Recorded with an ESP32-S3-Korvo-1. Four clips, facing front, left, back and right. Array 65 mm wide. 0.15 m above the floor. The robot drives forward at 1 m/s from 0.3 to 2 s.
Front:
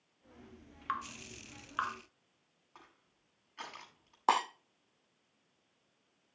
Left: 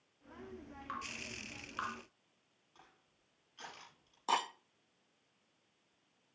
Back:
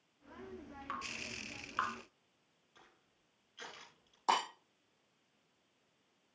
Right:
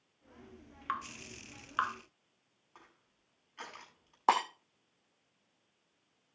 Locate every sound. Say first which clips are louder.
0.9 s dripping: right 6 dB, front 5 dB; 55° right, 2.5 m; by 1.9 s 90° right, 2 m
2.8 s crushing: right 4 dB, front 5 dB; 40° right, 7 m
4.3 s breaking glass: right 6 dB, front 3 dB; 60° right, 4.5 m